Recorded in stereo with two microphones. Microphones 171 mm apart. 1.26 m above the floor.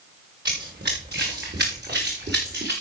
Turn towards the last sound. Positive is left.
turn(degrees=-80)